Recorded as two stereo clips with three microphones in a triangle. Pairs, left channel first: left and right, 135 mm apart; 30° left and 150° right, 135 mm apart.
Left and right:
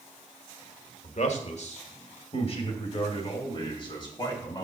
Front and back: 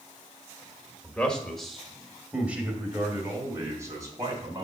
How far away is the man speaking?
About 1.5 m.